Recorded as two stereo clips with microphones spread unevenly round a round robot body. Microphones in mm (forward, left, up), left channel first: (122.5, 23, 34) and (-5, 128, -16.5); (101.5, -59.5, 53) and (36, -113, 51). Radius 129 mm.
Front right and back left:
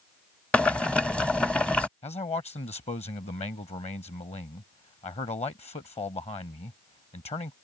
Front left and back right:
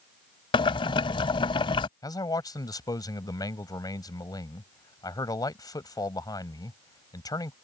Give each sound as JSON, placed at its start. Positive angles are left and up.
{"t": 0.5, "sound": "boiling", "azimuth_deg": 50}
{"t": 2.0, "sound": "a man speaking", "azimuth_deg": 15}